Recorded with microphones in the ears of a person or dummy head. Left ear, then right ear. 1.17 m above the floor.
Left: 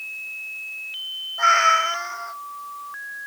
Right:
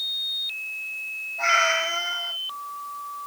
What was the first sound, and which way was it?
A cat meowing, 55° left (ahead or behind).